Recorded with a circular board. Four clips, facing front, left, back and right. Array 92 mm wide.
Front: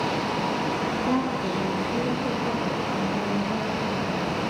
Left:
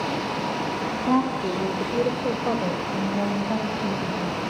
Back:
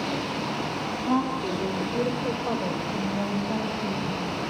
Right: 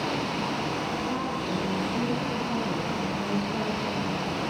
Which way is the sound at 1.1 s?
80° left.